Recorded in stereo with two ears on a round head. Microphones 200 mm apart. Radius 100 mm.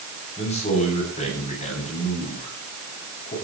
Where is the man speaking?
30° left (ahead or behind), 9.5 m.